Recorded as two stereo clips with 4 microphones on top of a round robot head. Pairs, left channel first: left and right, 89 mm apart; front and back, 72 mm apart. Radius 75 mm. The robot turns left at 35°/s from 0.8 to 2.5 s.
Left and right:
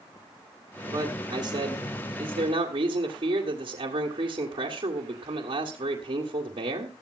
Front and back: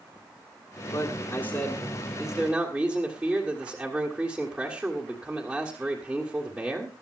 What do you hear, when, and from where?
0.9 s a man speaking: 45° right, 2 m; by 7.0 s 100° right, 2 m